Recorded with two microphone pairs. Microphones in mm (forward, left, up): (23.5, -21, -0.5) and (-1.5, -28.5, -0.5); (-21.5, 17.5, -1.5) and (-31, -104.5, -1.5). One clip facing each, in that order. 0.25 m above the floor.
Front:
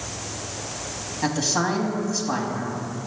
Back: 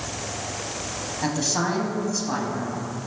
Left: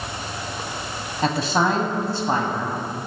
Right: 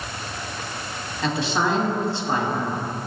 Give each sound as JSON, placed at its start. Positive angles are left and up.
{"t": 1.2, "sound": "a man speaking", "azimuth_deg": 100, "distance_m": 1.2}